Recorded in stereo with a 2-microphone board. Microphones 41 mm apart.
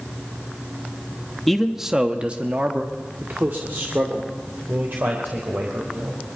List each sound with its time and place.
1.5 s a man speaking: 5° left (ahead or behind), 1.0 m; by 6.2 s 65° right (ahead or behind), 4 m